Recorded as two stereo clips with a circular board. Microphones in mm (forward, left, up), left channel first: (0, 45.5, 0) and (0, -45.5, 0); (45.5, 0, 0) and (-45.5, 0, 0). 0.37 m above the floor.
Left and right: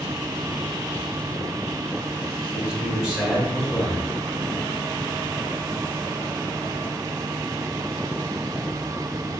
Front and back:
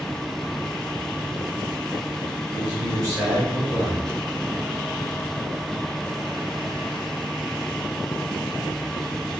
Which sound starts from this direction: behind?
A man speaking, at 2.5 s.